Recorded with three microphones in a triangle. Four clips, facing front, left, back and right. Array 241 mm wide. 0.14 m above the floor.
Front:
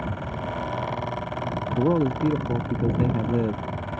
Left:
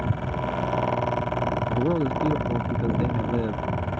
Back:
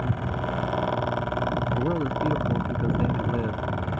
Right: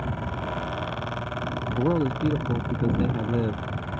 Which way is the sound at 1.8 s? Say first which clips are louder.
Right 2 dB, front 4 dB; straight ahead.